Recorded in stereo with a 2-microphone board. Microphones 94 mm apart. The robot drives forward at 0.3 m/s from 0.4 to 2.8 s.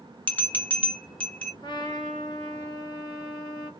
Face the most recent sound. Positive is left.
turn(degrees=45)  # may be behind; listen again after turning